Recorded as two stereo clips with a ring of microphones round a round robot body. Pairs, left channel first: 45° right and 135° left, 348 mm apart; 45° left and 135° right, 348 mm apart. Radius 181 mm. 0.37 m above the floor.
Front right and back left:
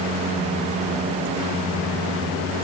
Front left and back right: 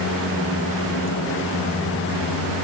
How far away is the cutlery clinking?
No cutlery clinking in this recording.